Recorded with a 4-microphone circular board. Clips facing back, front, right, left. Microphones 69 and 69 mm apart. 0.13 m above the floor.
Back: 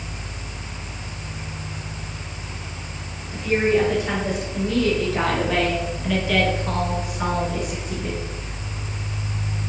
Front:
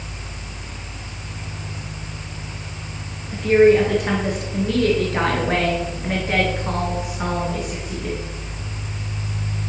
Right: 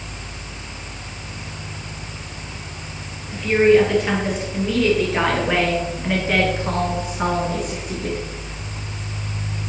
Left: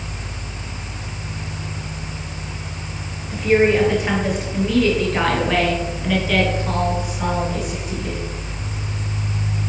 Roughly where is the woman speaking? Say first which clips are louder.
Front 7 dB, right 1 dB; ahead.